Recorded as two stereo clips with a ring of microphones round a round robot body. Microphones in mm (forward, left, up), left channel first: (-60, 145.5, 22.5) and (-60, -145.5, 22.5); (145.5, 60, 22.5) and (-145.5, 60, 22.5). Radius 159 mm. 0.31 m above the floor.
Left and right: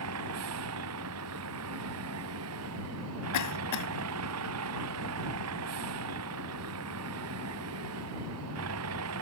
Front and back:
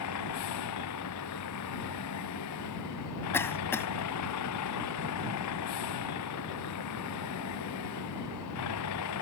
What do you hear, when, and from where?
0.0 s a vehicle: 45° right
3.3 s a cough: 80° left